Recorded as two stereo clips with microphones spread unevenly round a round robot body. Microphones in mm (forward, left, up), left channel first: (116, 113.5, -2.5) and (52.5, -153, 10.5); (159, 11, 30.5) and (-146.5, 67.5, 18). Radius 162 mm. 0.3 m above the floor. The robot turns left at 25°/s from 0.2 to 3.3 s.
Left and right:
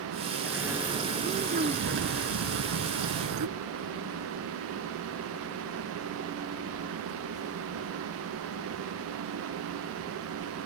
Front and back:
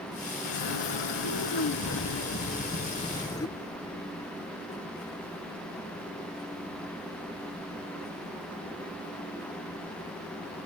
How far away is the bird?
About 0.6 m.